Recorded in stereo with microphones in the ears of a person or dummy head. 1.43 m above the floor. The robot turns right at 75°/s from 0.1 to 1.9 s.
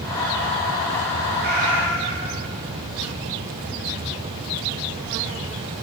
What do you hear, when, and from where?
1.4 s a cat meowing: 65° right, 2 m; by 2.3 s 25° right, 2 m